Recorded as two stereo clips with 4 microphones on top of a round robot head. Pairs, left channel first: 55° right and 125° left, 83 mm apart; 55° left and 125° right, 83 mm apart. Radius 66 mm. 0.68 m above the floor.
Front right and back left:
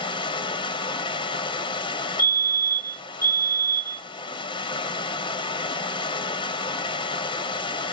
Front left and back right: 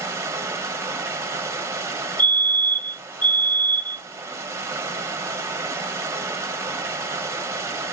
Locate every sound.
0.0 s running water: 65° right, 0.9 m
2.2 s a fire alarm: 115° left, 2 m